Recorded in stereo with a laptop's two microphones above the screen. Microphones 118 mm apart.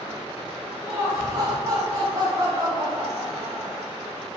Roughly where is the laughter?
Right.